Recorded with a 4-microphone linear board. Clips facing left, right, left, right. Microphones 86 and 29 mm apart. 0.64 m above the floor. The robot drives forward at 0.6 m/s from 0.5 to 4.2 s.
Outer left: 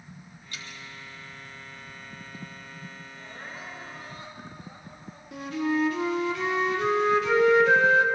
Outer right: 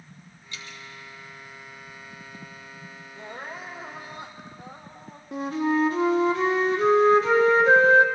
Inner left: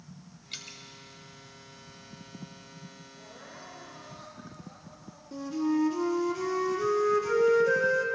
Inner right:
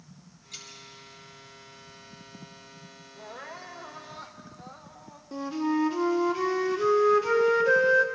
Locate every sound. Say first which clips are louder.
0.5 s dripping: outer right 1 dB, inner left 2 dB; 50° left (ahead or behind), 1.5 m; by 0.8 s 55° left (ahead or behind), 1.4 m
3.1 s crying: outer right 6 dB, inner right 8 dB; 70° right (ahead or behind), 1.5 m; by 5.2 s 65° right (ahead or behind), 1.6 m
5.3 s a flute: outer right 3 dB, inner right 1 dB; 35° right (ahead or behind), 0.8 m